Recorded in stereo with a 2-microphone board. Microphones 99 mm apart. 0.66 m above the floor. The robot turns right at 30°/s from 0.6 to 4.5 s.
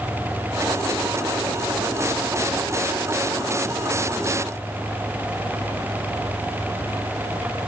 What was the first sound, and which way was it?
Only background noise.